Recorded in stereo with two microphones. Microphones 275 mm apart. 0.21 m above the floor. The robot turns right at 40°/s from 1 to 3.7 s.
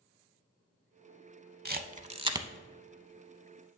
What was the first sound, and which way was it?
A camera shutter, 35° right (ahead or behind).